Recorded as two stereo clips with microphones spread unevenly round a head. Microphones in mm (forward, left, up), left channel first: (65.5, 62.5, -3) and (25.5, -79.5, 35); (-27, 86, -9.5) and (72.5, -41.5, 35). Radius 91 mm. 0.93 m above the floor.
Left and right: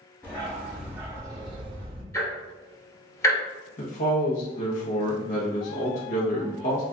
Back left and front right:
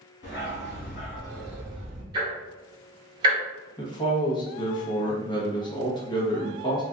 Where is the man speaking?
80° left, 0.9 m.